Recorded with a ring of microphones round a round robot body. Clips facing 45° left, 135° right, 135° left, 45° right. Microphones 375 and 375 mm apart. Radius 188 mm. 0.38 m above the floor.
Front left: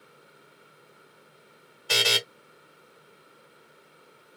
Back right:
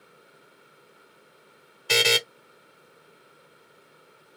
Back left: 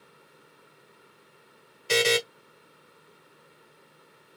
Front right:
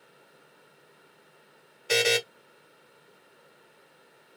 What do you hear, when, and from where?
1.9 s a buzzer: 145° right, 1.1 m